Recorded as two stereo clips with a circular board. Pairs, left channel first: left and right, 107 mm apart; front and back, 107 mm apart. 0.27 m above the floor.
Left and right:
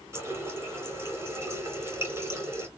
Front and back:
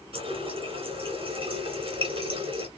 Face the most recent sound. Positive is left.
turn(degrees=-155)